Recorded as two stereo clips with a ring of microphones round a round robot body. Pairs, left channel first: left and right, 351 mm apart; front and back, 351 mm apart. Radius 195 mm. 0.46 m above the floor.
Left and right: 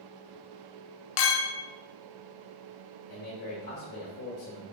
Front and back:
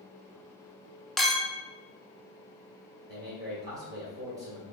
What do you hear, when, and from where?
1.2 s a clink: 90° left, 0.6 m
3.1 s a man speaking: 125° left, 1.5 m